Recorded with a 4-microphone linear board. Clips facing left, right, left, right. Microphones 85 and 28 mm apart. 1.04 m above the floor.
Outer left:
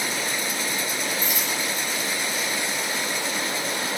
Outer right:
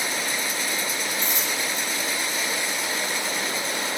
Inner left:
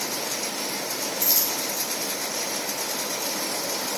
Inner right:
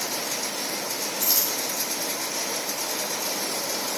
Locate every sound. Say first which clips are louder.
1.2 s a dropped coin: even, inner right 1 dB; 5° left (ahead or behind), 5 m